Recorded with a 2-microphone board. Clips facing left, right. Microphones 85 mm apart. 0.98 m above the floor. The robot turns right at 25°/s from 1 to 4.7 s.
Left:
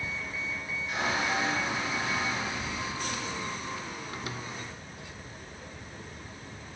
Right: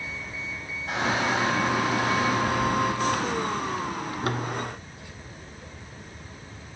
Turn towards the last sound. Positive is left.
turn(degrees=0)